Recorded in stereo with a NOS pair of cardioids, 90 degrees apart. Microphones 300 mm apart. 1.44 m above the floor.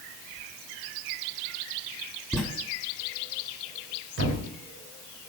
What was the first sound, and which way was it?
Writing, 5° left.